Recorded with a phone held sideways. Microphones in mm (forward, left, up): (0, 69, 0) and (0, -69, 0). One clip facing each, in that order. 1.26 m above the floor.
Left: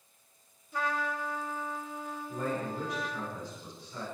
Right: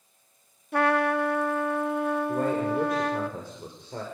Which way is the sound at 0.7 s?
70° right (ahead or behind).